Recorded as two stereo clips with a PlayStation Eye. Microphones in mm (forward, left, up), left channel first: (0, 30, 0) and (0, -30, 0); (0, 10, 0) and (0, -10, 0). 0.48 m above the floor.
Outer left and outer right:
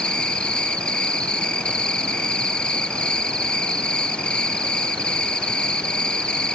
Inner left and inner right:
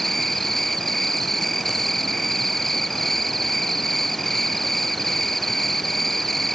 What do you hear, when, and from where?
0.0 s an insect: 15° left (ahead or behind), 0.7 m